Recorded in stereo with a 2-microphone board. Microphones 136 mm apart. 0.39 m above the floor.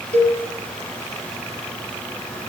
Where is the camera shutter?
No camera shutter in this recording.